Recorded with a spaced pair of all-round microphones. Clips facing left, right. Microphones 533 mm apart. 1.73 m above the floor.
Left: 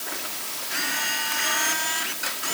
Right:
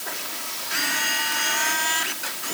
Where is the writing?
I don't hear writing.